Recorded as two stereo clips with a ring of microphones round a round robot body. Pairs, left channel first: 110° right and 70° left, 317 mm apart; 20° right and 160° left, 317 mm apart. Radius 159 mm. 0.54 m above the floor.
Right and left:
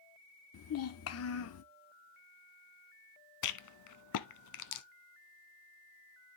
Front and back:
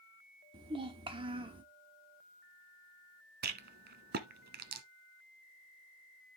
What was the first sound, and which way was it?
A child speaking, 135° right.